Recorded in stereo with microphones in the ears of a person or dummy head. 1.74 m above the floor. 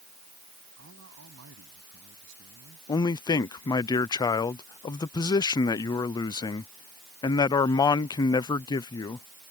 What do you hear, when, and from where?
0.8 s a man speaking: 65° right (ahead or behind)
2.9 s a man speaking: 25° left (ahead or behind)